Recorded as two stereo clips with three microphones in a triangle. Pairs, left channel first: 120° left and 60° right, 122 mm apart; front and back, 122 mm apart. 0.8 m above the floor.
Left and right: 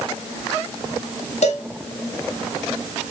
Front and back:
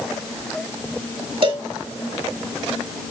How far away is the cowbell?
About 1.6 m.